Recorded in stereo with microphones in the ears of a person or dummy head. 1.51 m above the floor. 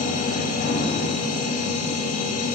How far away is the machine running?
About 2 m.